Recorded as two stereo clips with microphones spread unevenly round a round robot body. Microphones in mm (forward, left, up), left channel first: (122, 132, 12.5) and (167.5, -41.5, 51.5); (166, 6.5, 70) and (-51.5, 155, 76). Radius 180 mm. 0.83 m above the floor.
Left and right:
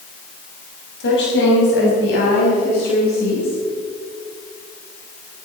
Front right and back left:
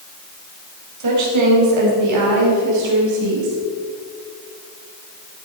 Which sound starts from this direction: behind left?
A woman speaking, at 1.0 s.